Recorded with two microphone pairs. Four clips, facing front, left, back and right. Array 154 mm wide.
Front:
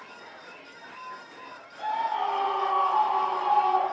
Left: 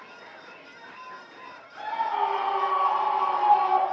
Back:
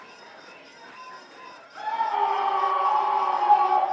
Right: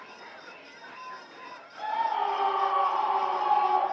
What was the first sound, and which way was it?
A scream, 150° left.